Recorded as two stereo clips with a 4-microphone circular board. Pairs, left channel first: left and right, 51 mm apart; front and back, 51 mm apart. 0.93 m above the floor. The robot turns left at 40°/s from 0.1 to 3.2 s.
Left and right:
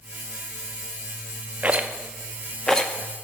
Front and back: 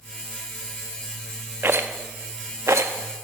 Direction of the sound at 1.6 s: 145° right.